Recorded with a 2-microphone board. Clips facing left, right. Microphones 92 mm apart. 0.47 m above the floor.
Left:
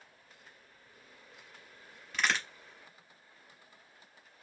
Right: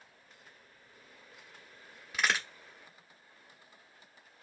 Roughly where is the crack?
Centre.